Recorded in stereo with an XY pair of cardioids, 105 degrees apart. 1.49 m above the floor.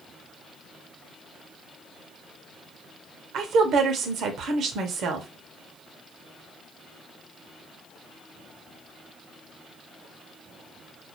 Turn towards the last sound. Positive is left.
turn(degrees=-70)